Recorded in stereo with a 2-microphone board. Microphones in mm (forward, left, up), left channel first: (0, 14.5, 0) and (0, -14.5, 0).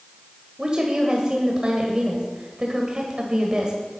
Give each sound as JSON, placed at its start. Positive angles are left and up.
{"t": 0.6, "sound": "a woman speaking", "side_deg": -30, "distance_m": 1.6}